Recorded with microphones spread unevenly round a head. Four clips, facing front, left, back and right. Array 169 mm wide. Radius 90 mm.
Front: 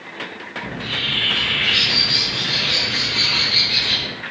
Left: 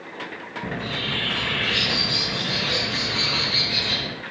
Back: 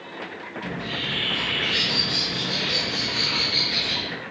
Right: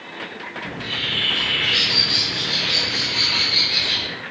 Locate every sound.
0.6 s a bird: 80° left, 1.0 m